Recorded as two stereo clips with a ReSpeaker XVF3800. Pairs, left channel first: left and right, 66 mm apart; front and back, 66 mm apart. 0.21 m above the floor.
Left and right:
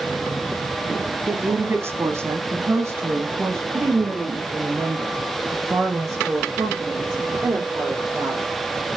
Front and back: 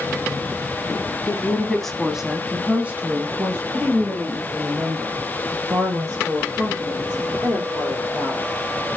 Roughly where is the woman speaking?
Ahead right.